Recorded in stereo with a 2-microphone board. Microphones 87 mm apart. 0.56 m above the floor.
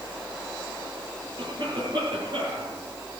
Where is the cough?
60° right (ahead or behind), 8 m.